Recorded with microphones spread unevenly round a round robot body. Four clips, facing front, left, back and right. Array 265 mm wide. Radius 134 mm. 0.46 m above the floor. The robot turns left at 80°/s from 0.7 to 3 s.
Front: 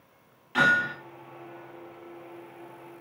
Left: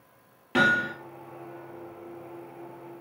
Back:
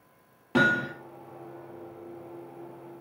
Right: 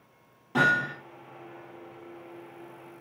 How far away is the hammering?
About 5 m.